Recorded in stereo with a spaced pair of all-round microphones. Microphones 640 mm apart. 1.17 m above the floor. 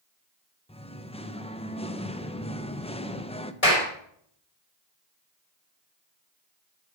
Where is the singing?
10° left (ahead or behind), 0.8 m.